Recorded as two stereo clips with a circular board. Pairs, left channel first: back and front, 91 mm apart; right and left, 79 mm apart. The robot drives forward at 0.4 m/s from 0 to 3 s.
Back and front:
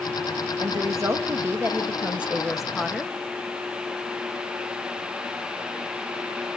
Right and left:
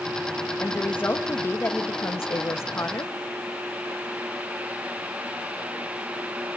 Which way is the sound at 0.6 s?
30° right.